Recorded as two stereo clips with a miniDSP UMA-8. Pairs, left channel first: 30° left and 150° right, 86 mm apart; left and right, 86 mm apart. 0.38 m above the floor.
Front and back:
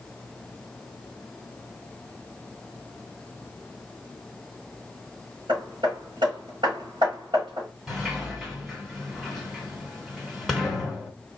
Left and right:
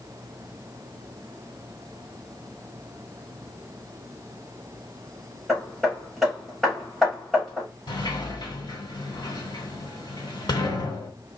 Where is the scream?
I don't hear a scream.